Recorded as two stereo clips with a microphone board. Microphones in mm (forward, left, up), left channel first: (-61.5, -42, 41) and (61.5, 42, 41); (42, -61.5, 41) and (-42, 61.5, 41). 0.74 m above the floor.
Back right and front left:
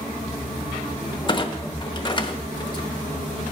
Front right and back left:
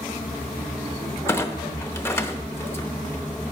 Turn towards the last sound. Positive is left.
turn(degrees=-115)